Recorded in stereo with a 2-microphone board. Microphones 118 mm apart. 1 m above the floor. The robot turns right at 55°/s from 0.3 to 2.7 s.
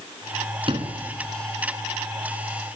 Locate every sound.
0.7 s a sliding door: 50° right (ahead or behind), 3.5 m; by 1.1 s 70° right (ahead or behind), 3.5 m